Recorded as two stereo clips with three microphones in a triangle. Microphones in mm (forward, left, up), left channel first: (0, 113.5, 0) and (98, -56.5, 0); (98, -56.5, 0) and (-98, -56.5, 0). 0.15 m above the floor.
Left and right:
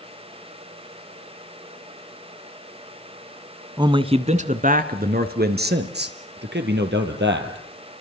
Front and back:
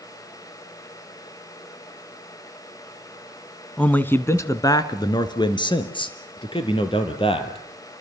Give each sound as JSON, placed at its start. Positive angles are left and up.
{"t": 3.8, "sound": "a man speaking", "azimuth_deg": -75, "distance_m": 1.3}